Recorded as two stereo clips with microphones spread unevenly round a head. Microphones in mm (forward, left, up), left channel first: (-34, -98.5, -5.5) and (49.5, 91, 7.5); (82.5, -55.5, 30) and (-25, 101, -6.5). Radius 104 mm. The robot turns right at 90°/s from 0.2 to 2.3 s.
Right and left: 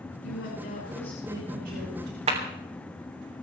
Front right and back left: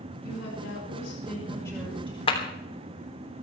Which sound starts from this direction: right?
A woman speaking, at 0.2 s.